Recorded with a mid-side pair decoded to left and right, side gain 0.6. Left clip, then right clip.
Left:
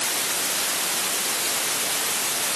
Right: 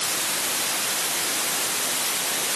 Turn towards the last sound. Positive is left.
No sound to turn to.